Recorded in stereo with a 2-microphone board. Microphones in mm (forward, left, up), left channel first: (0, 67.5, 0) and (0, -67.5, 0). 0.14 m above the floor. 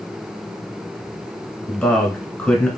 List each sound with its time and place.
1.7 s a man speaking: 10° left (ahead or behind), 1.2 m